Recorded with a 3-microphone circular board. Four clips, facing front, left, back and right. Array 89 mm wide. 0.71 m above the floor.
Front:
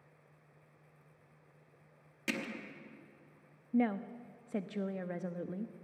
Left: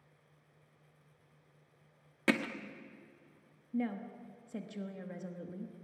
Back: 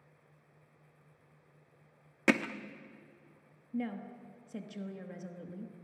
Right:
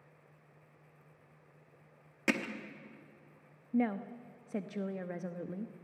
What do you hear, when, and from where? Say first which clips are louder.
2.3 s hammering: left 2 dB, back 10 dB; 170° left, 1.1 m
3.7 s a woman speaking: right 4 dB, front 6 dB; 35° right, 0.9 m